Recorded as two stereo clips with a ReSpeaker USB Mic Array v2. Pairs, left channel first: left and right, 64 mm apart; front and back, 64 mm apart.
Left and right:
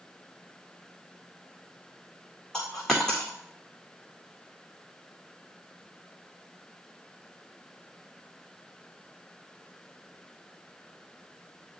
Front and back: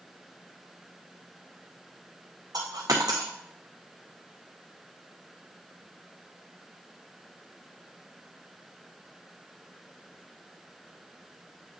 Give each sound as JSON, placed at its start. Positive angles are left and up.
{"t": 2.5, "sound": "a dropped coin", "azimuth_deg": 170, "distance_m": 1.7}